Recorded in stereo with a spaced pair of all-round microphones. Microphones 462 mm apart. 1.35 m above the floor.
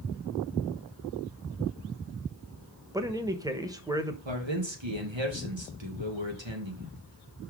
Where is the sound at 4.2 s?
70° right (ahead or behind), 1.9 m.